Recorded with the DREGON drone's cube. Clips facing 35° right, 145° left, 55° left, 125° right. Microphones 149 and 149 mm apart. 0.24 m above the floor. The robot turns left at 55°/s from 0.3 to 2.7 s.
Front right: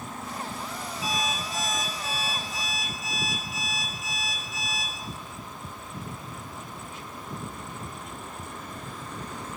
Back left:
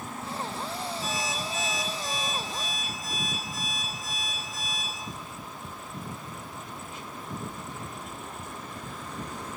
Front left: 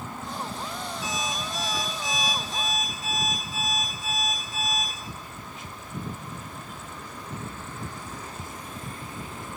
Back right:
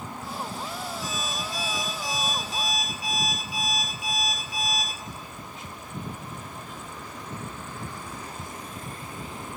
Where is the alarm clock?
45° left, 3 m; by 4.9 s 45° right, 3 m.